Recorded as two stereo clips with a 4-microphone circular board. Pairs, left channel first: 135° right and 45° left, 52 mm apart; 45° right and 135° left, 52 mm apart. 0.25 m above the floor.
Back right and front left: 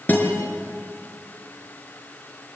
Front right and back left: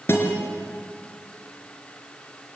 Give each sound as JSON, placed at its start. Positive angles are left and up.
{"t": 0.1, "sound": "a guitar", "azimuth_deg": -85, "distance_m": 4.0}